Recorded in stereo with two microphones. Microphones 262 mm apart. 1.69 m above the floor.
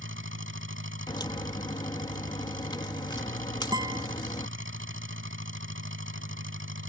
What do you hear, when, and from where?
0.0 s an engine running: 50° right (ahead or behind)
1.1 s a crack: 15° left (ahead or behind)
3.7 s a guitar: 15° right (ahead or behind)